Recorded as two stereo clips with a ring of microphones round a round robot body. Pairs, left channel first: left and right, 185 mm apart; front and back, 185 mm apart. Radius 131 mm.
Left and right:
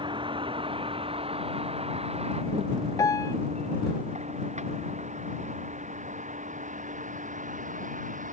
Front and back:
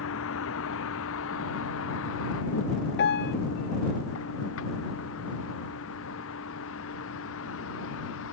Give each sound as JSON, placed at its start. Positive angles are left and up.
{"t": 0.0, "sound": "a vehicle", "azimuth_deg": -25}
{"t": 3.0, "sound": "a piano", "azimuth_deg": 15}